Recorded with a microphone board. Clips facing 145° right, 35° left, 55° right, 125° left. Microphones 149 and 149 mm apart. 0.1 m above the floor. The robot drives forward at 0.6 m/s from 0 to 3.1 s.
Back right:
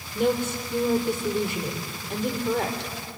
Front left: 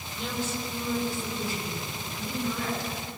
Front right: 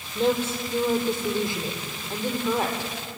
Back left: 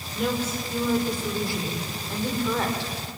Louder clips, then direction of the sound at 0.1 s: Back right 9 dB, front right 4 dB; 115° right.